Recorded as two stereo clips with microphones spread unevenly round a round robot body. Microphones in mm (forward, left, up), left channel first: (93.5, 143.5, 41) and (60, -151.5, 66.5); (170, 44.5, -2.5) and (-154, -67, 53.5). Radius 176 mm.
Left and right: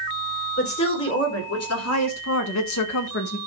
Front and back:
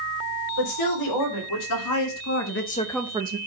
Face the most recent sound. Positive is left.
turn(degrees=140)